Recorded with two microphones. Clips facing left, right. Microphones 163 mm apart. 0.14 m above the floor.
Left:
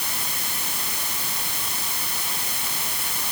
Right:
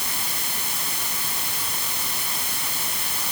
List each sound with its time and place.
Only background noise.